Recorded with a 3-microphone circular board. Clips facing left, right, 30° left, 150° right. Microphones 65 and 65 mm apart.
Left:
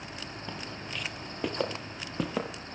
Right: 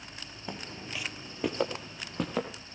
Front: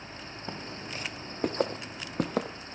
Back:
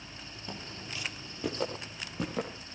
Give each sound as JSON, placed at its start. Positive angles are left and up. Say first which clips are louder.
{"t": 0.5, "sound": "footsteps", "louder": "right 2 dB, front 3 dB", "azimuth_deg": -15, "distance_m": 1.8}